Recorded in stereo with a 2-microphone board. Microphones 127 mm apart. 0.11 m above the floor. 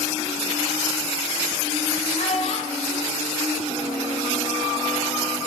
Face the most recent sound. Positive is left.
turn(degrees=25)  # may be behind; listen again after turning